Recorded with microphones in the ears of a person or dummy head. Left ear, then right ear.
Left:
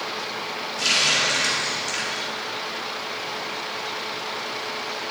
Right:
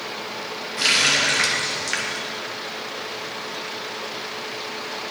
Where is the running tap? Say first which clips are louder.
Right 2 dB; 40° right (ahead or behind), 0.8 m.